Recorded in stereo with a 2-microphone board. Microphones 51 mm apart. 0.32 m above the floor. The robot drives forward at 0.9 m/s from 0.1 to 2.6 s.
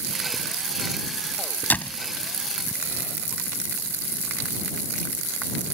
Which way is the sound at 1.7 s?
35° left (ahead or behind).